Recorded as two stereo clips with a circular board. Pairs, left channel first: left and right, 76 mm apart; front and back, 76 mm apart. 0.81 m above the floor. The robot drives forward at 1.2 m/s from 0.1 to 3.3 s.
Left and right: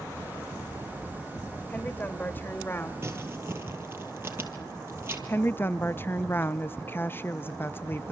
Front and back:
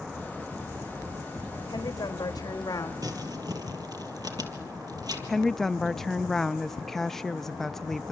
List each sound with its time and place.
1.7 s a woman speaking: 25° left, 4 m; by 2.9 s 35° left, 2.5 m
3.0 s crumpling: 145° right, 3.5 m; by 5.2 s 150° right, 3.5 m
5.3 s a woman speaking: 80° left, 0.6 m